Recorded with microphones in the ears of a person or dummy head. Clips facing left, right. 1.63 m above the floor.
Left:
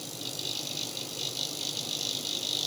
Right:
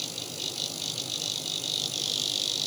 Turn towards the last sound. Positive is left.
No sound to turn to.